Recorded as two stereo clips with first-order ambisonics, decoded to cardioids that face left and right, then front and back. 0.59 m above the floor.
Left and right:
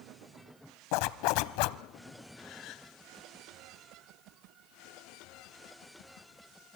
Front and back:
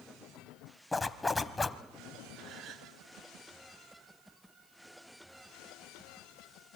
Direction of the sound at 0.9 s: 80° left.